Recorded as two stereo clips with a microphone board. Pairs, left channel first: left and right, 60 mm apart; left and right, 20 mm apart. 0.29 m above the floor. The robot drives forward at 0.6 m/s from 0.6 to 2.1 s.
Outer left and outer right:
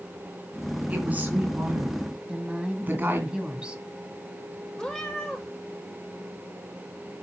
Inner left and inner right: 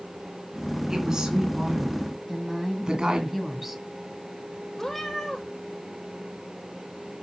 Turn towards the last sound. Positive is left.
turn(degrees=10)  # may be behind; listen again after turning